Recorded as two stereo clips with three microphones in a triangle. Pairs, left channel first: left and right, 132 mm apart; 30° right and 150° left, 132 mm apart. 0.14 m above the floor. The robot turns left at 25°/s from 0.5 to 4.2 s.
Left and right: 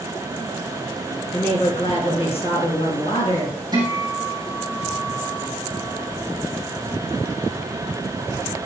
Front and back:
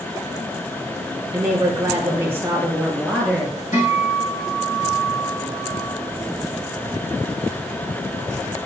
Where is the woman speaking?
110° left, 2.5 m; by 3.6 s 55° left, 2.5 m.